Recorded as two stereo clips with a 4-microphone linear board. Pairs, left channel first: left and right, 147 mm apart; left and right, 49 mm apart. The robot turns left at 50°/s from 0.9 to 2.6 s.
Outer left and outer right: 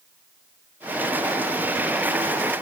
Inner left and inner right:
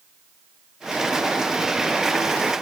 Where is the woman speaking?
No woman speaking in this recording.